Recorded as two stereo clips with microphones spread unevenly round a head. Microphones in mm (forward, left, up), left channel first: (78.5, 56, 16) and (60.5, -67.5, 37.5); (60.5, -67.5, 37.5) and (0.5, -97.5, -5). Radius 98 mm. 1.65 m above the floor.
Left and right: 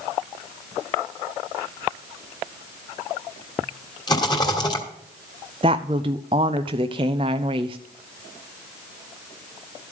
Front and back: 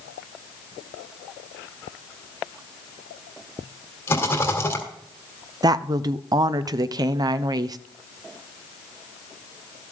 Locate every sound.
4.1 s a rattle: 25° left, 2.5 m
5.6 s a woman speaking: 165° right, 0.5 m